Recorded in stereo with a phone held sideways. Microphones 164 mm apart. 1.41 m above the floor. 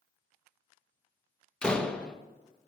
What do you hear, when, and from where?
1.6 s a door slam: 5° left (ahead or behind), 0.8 m